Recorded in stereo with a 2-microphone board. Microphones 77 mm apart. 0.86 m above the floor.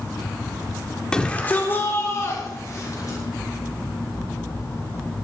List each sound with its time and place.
1.1 s a shout: 10° left (ahead or behind), 2.5 m; by 3.2 s 50° left (ahead or behind), 4.5 m